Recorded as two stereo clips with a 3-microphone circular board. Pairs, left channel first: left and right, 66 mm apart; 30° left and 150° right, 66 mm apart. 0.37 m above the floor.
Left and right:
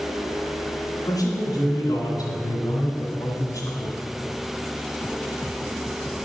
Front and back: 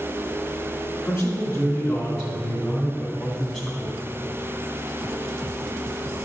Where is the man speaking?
70° left, 3 m; by 4.0 s 105° left, 2 m.